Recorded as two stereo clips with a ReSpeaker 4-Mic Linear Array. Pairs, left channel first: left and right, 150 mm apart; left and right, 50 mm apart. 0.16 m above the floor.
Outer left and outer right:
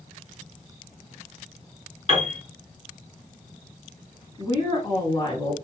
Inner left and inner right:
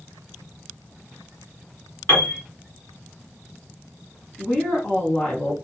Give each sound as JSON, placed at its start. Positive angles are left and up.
{"t": 2.1, "sound": "a piano", "side_deg": 45, "distance_m": 1.9}
{"t": 4.4, "sound": "a woman speaking", "side_deg": 30, "distance_m": 1.4}